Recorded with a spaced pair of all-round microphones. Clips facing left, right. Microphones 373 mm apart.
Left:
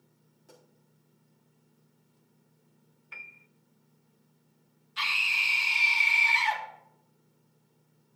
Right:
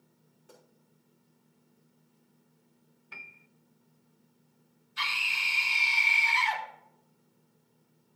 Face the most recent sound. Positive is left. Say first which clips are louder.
# left 1 dB
turn(degrees=80)